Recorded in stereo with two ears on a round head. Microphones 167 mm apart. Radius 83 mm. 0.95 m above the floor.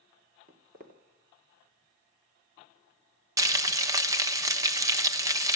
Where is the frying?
20° right (ahead or behind), 0.8 m.